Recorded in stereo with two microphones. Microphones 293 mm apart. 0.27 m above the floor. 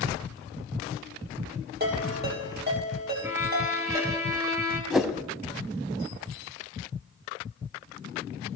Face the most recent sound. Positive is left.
turn(degrees=0)  # may be behind; listen again after turning